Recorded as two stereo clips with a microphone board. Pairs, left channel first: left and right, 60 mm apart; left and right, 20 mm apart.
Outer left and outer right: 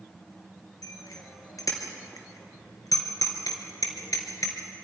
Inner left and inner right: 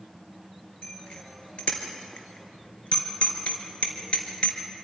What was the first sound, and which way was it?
A bicycle bell, 70° left (ahead or behind).